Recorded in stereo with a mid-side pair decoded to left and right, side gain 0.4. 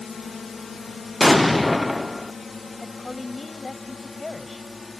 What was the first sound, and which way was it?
A drone, 45° left.